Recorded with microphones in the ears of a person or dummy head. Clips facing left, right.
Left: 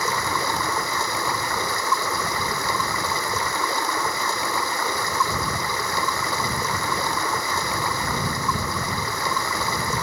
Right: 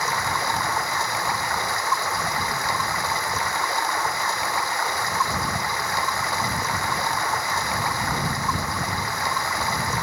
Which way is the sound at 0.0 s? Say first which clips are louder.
Left 1 dB; 85° left.